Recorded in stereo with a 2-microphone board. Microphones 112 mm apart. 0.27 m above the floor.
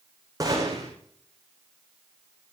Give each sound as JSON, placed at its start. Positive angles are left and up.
{"t": 0.4, "sound": "a gunshot", "side_deg": -30, "distance_m": 5.0}